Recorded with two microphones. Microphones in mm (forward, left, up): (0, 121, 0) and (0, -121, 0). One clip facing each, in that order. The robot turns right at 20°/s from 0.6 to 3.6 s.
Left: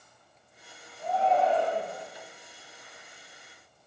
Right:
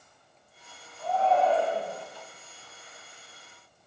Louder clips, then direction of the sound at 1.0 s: Right 1 dB; 15° left (ahead or behind).